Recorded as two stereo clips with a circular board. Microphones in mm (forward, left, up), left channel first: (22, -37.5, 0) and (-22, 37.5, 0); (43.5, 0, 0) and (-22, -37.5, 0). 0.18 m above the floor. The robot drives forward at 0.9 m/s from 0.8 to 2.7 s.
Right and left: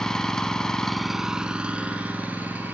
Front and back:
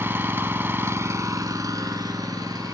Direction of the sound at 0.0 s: 135° right.